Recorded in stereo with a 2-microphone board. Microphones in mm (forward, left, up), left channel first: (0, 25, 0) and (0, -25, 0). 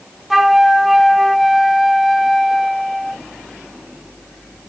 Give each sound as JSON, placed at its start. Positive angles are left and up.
{"t": 0.3, "sound": "a flute", "side_deg": -5, "distance_m": 0.7}